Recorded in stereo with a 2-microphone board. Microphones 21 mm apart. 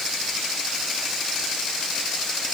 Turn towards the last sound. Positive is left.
No sound to turn to.